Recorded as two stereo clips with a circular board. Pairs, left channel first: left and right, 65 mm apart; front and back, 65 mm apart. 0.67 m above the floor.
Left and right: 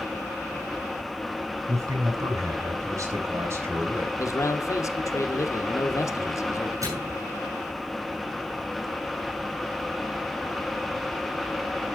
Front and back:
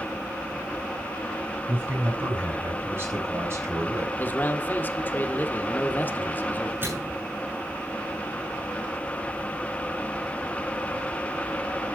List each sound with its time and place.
1.7 s a man speaking: 120° right, 6 m; by 4.1 s 140° right, 3.5 m
4.2 s a man speaking: 60° left, 1.1 m
6.8 s a microwave: 125° right, 6.5 m